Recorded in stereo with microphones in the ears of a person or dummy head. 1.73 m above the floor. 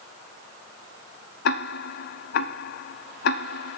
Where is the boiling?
I don't hear boiling.